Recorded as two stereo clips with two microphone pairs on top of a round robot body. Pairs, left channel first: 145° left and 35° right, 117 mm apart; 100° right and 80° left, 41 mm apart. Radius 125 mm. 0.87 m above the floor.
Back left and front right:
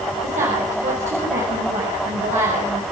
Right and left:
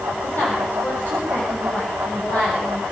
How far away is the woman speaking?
About 7.5 m.